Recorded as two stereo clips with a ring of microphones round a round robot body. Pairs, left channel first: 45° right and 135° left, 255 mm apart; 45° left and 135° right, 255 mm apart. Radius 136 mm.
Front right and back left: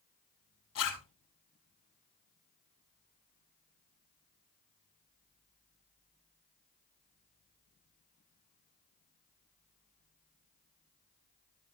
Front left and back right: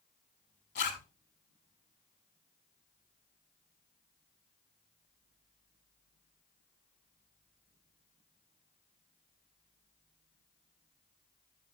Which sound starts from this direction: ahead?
A zipper, at 0.8 s.